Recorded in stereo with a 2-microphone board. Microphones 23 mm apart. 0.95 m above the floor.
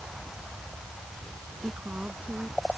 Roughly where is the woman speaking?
Right.